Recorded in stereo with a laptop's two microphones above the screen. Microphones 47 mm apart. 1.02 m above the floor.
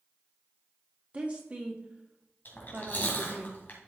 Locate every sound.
1.1 s a woman speaking: 30° right (ahead or behind), 1.9 m
2.5 s chewing: 40° left (ahead or behind), 2 m